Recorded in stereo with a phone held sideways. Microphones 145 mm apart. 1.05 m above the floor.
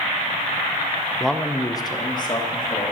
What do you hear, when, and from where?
1.2 s a man speaking: 5° right (ahead or behind), 0.5 m; by 2.9 s 30° left (ahead or behind), 1.9 m